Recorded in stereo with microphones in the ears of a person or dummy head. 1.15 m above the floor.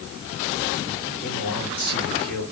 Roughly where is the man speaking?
Left.